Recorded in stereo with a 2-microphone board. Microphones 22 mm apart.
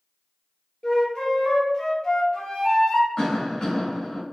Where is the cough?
40° left (ahead or behind), 1.9 m.